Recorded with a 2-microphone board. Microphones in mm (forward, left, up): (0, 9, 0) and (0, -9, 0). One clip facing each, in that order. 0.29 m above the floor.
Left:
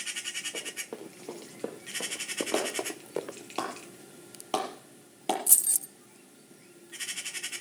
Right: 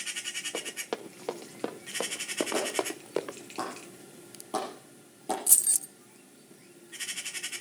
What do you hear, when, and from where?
0.5 s running footsteps: 70° right (ahead or behind), 3 m; by 3.4 s 15° right (ahead or behind), 1.6 m
2.5 s a clap: 60° left (ahead or behind), 6 m
5.5 s keys jangling: 15° right (ahead or behind), 0.6 m